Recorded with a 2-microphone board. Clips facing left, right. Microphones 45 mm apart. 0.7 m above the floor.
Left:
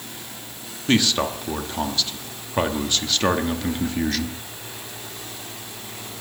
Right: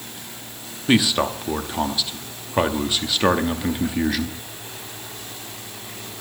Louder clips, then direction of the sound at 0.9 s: Right 2 dB; 10° right (ahead or behind).